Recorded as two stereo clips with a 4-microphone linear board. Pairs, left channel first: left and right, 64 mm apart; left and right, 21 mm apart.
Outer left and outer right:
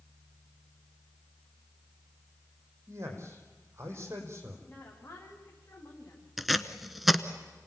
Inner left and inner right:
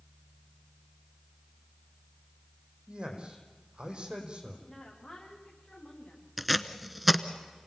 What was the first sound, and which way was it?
A man speaking, 40° right (ahead or behind).